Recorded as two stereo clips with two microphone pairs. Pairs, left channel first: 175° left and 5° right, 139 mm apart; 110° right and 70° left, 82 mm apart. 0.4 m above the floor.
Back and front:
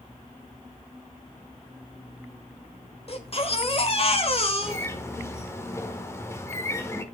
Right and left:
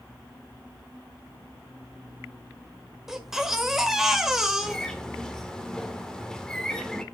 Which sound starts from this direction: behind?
A bird, at 4.6 s.